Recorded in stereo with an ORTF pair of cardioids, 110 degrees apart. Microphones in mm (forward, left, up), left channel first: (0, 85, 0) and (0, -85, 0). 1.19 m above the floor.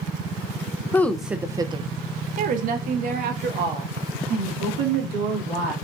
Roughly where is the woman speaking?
Ahead.